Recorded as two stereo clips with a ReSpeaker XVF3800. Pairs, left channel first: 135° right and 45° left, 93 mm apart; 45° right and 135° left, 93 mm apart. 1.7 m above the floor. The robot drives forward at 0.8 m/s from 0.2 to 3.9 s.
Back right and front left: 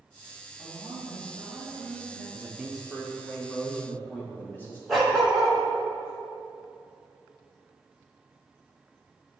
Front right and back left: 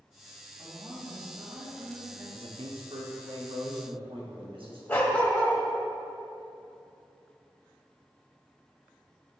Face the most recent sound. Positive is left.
turn(degrees=-40)